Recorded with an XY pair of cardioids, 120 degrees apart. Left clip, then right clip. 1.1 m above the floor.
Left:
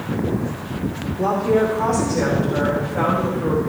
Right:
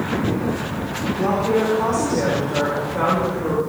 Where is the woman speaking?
10° left, 4 m; by 3.6 s 5° right, 4.5 m.